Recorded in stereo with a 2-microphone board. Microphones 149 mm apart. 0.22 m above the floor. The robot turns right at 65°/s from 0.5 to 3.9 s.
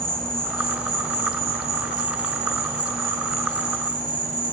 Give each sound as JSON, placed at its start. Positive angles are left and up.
{"t": 0.0, "sound": "an insect", "azimuth_deg": 170, "distance_m": 1.6}